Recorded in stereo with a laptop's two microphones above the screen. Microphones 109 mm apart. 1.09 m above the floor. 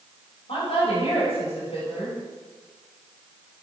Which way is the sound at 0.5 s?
70° left (ahead or behind).